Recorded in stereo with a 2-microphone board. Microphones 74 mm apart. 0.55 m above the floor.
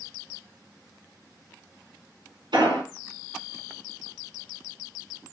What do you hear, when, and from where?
2.5 s an explosion: 85° right, 2.5 m